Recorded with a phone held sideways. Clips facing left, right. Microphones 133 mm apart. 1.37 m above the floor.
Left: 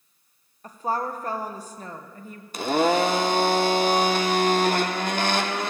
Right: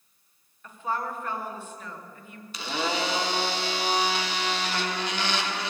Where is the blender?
50° left (ahead or behind), 0.5 m.